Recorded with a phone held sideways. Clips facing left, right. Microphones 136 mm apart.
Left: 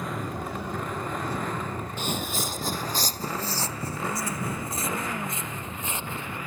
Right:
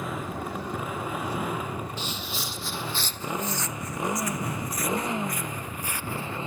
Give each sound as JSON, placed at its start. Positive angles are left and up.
{"t": 0.0, "sound": "a motorcycle", "side_deg": -5}
{"t": 2.0, "sound": "footsteps", "side_deg": 50}